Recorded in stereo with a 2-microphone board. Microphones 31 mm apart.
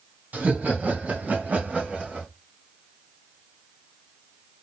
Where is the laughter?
55° right (ahead or behind), 2.0 m; by 2.3 s 50° right (ahead or behind), 2 m.